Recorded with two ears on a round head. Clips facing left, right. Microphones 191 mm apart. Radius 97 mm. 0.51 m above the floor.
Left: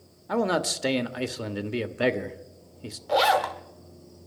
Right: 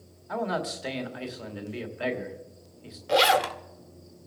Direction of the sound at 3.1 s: 30° right (ahead or behind).